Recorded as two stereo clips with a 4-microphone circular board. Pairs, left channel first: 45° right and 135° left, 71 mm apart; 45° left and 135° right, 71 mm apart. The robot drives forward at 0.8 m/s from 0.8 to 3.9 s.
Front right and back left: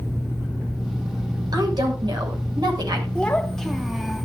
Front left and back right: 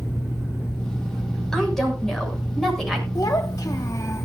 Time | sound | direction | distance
1.5 | a woman speaking | 130° left | 7 m
3.1 | a child speaking | 30° left | 1.6 m